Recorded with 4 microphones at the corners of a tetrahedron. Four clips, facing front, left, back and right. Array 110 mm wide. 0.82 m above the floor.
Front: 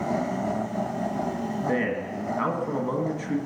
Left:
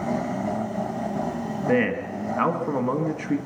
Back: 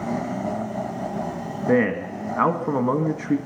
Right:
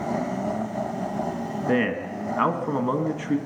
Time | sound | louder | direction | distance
1.7 | a man speaking | left 1 dB, back 9 dB | 170° right | 1.3 m